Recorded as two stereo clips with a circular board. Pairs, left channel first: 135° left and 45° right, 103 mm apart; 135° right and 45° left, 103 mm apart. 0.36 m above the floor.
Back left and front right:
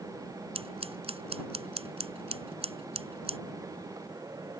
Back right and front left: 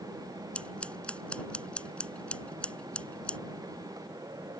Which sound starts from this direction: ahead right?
Scissors, at 0.6 s.